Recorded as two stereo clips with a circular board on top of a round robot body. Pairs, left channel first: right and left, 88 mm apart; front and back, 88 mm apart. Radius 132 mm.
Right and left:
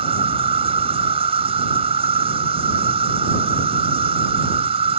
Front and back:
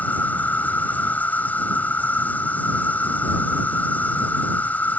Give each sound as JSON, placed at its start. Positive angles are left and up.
{"t": 0.0, "sound": "an insect", "azimuth_deg": 75}